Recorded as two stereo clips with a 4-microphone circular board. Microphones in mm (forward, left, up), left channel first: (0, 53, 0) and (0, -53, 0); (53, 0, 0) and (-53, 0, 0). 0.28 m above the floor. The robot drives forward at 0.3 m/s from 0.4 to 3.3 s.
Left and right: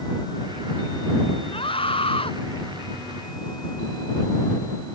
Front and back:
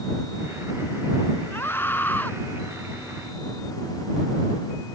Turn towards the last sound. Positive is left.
turn(degrees=80)